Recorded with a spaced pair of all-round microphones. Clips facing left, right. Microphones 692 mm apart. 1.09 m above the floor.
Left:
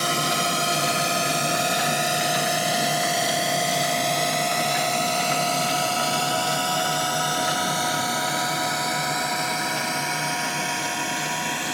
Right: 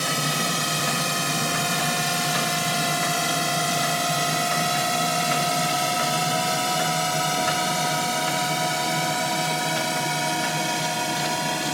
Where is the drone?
25° right (ahead or behind); by 11.7 s 65° right (ahead or behind).